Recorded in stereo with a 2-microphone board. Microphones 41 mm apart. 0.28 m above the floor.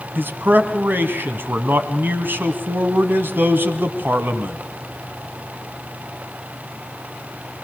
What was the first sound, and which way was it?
A man speaking, 60° right (ahead or behind).